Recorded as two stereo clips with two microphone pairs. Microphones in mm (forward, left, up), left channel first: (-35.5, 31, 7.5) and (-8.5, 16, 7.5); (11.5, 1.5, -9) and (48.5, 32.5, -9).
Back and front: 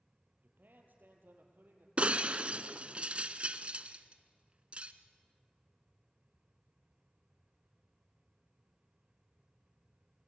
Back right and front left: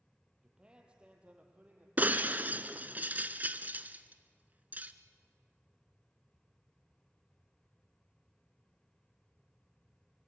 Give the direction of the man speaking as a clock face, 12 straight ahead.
1 o'clock.